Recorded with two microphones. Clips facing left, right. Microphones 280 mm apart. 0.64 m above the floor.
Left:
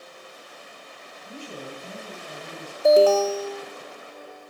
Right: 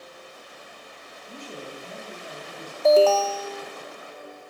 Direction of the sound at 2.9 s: 20° left (ahead or behind).